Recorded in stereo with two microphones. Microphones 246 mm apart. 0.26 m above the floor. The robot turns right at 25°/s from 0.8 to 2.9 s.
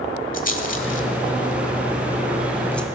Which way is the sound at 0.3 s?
35° left (ahead or behind).